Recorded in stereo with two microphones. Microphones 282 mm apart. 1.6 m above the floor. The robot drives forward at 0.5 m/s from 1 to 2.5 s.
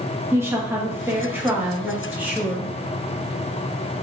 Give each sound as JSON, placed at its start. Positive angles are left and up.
{"t": 0.3, "sound": "a woman speaking", "side_deg": -10, "distance_m": 2.0}